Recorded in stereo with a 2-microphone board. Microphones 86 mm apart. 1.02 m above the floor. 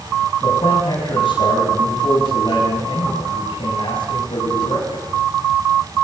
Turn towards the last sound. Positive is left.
turn(degrees=80)